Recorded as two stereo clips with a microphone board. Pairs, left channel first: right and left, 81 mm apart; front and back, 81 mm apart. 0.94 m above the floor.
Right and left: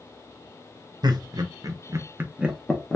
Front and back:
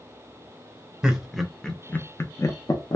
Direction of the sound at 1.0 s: 100° left.